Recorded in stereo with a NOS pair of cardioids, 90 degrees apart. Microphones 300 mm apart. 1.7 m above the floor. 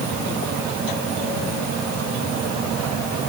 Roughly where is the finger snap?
No finger snap in this recording.